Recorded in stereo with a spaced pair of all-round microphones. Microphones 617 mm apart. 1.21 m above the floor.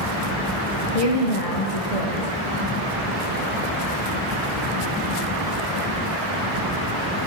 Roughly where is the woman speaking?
Left.